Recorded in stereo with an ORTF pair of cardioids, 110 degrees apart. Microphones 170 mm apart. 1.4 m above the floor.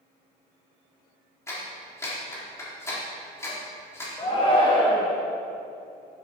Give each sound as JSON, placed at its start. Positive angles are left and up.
{"t": 1.5, "sound": "a clap", "azimuth_deg": 15, "distance_m": 3.5}
{"t": 4.2, "sound": "a shout", "azimuth_deg": 25, "distance_m": 1.4}